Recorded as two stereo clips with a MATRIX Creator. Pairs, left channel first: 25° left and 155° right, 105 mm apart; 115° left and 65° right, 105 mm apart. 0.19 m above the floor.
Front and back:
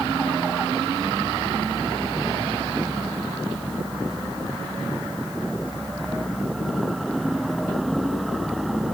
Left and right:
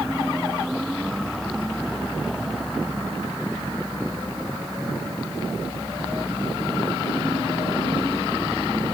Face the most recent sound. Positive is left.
No sound to turn to.